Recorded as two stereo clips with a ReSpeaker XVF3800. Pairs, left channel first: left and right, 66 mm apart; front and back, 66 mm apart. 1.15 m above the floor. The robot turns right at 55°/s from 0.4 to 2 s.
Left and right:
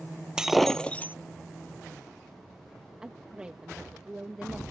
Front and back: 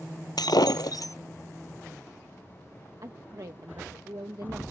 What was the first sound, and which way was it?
Breaking glass, 10° right.